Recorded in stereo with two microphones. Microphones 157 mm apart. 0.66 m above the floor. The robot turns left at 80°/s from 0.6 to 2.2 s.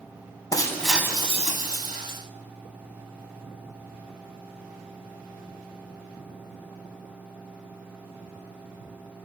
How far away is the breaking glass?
About 2.5 m.